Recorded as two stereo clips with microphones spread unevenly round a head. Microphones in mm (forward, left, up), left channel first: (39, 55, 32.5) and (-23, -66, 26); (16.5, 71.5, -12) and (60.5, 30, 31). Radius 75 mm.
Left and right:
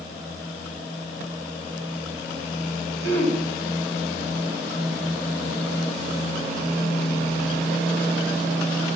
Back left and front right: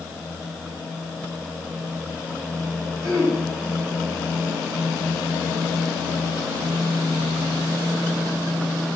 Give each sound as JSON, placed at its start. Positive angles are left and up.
{"t": 3.0, "sound": "throat clearing", "azimuth_deg": -115, "distance_m": 5.0}